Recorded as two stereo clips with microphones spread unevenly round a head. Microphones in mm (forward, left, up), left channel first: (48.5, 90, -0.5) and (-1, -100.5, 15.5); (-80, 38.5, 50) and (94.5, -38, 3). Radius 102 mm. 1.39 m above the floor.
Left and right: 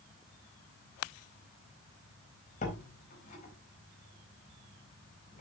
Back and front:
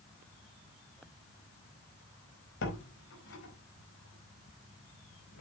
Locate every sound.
2.6 s a door slam: 135° left, 4.5 m